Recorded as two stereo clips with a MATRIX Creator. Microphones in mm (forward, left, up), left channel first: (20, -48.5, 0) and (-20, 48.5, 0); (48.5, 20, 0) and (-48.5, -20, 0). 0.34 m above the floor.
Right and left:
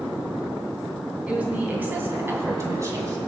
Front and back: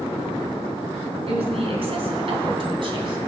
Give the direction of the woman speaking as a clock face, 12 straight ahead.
6 o'clock.